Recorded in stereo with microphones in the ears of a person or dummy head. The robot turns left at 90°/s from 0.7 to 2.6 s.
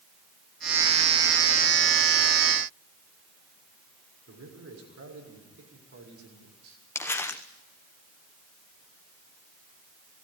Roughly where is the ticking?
No ticking in this recording.